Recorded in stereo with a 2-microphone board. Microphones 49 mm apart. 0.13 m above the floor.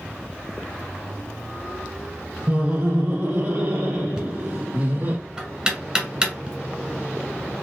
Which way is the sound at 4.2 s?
20° right (ahead or behind).